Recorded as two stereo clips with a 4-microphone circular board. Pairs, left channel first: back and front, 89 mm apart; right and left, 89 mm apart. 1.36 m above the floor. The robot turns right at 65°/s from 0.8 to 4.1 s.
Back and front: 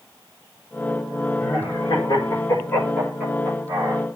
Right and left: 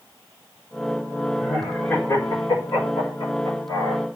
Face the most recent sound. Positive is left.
turn(degrees=-20)